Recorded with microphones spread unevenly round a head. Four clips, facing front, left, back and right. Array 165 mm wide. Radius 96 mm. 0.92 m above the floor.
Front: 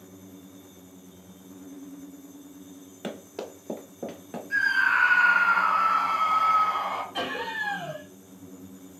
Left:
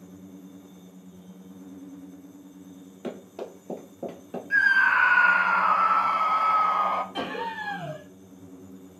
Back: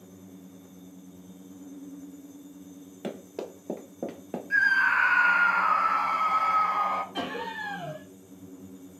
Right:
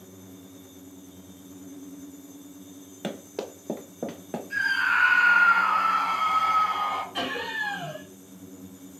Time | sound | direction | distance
3.0 | running footsteps | 25° right | 1.3 m
4.5 | a scream | 85° left | 0.8 m
7.1 | laughter | straight behind | 2 m